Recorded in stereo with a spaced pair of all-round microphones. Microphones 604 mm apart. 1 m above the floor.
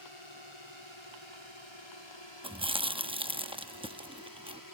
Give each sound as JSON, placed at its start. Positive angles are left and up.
{"t": 0.0, "sound": "a drone", "side_deg": 55}
{"t": 2.4, "sound": "chewing", "side_deg": -10}